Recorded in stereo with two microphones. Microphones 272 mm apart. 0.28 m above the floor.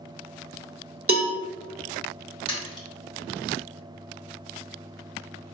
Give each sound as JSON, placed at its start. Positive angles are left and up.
{"t": 1.1, "sound": "a cowbell", "side_deg": -55, "distance_m": 0.7}
{"t": 2.5, "sound": "a splash", "side_deg": 20, "distance_m": 1.0}